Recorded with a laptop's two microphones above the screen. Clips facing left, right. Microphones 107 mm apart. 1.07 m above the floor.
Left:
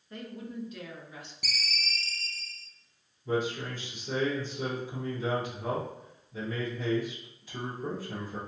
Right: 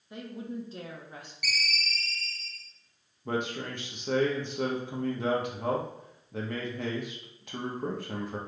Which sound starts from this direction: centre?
A woman speaking, at 0.1 s.